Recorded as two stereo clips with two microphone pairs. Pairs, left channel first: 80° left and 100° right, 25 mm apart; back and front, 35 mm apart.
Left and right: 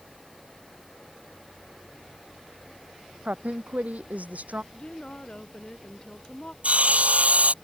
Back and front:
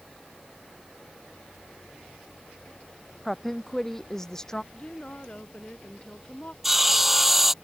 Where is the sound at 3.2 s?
90° right; by 4.6 s 105° right.